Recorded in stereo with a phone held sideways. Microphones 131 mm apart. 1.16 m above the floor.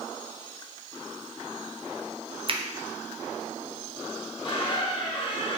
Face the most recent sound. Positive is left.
turn(degrees=40)  # may be behind; listen again after turning